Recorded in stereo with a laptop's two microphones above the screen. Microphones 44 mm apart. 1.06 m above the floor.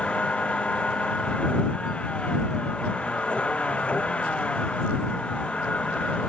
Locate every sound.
0.0 s a vehicle: 25° left (ahead or behind)